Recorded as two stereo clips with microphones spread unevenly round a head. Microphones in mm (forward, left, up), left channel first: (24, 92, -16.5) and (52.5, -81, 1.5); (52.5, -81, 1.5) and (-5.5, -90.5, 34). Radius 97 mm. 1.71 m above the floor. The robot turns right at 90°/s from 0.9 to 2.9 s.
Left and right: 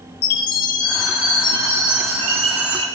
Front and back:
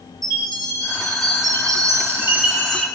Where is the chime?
120° left, 3.5 m; by 2.9 s 65° right, 3.5 m.